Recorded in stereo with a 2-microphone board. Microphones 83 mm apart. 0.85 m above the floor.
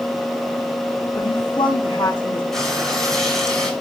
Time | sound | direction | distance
1.1 | a woman speaking | 80° left | 4.5 m
2.5 | frying | 5° left (ahead or behind) | 5.5 m